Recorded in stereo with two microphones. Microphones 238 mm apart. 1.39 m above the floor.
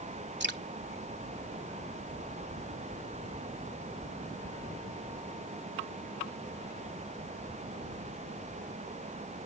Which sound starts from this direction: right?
Dripping, at 0.4 s.